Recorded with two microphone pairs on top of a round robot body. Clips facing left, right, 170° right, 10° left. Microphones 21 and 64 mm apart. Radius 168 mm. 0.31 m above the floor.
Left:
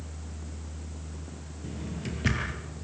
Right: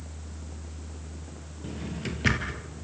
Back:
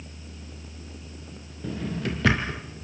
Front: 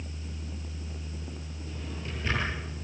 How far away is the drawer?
About 3 m.